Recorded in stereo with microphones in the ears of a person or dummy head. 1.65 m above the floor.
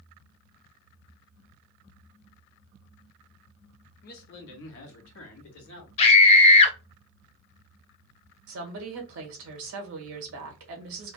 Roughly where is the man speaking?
Left.